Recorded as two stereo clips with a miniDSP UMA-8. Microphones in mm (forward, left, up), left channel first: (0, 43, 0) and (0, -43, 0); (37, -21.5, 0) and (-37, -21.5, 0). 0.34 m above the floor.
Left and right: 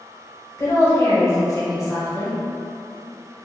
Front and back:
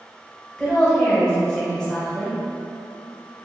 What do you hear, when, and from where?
0.6 s a woman speaking: 75° left, 1.2 m